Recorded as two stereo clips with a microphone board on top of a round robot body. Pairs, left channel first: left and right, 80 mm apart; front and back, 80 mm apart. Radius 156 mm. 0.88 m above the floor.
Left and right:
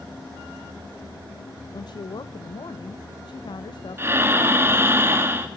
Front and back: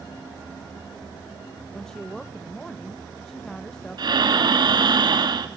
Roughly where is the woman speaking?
Left.